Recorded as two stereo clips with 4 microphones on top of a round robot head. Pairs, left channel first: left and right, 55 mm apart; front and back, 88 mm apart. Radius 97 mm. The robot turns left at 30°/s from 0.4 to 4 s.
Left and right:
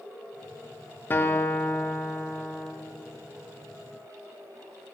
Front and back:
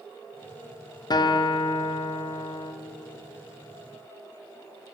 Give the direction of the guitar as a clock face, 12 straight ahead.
11 o'clock.